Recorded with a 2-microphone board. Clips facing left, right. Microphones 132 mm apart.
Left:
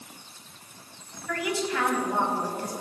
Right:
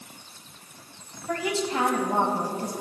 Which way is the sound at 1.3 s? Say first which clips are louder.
Right 2 dB; 30° right (ahead or behind).